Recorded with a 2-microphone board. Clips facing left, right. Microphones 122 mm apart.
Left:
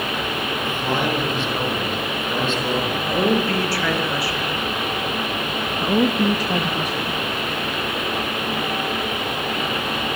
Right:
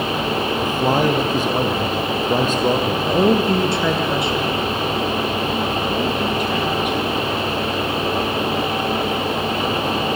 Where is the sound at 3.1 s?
20° right (ahead or behind), 3.5 m.